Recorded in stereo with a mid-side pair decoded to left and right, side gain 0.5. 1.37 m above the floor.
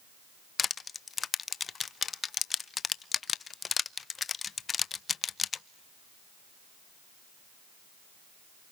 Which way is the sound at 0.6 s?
35° left.